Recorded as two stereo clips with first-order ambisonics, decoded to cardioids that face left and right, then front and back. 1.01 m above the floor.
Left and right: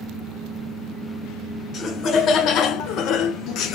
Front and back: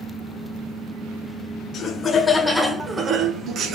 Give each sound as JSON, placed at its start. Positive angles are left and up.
{"t": 1.7, "sound": "laughter", "azimuth_deg": 45, "distance_m": 0.8}